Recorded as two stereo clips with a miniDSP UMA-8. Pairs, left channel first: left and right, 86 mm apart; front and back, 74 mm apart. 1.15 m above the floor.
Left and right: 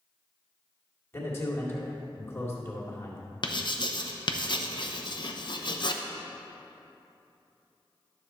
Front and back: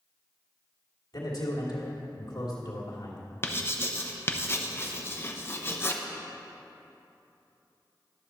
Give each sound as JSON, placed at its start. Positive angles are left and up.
{"t": 1.1, "sound": "a man speaking", "azimuth_deg": 25, "distance_m": 2.5}
{"t": 3.4, "sound": "writing", "azimuth_deg": 60, "distance_m": 0.7}